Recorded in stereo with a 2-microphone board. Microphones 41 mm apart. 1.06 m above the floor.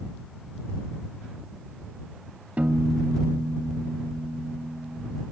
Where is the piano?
40° right (ahead or behind).